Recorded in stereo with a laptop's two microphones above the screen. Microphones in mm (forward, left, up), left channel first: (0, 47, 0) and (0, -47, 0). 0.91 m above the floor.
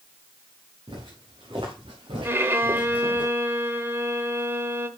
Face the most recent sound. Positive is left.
turn(degrees=-30)  # may be behind; listen again after turning